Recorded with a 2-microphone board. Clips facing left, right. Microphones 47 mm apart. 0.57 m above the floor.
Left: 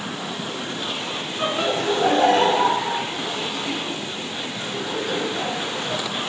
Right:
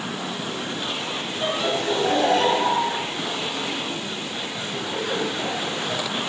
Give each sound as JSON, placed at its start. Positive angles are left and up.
{"t": 1.4, "sound": "laughter", "side_deg": 40, "distance_m": 5.5}